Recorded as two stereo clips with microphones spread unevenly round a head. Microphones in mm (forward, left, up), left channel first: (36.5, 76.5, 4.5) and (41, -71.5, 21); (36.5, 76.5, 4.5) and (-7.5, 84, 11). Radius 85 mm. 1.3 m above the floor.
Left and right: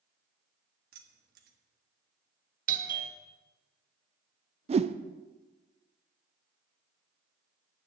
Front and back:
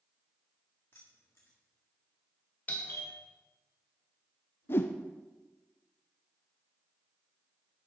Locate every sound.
0.9 s keys jangling: 85° right, 1.4 m
2.7 s a doorbell: 65° right, 1.4 m
4.7 s a whoosh: 40° right, 0.6 m